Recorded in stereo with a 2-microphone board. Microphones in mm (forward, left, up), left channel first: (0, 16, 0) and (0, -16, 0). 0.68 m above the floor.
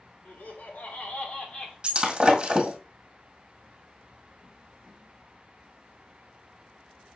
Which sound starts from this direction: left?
Laughter, at 0.2 s.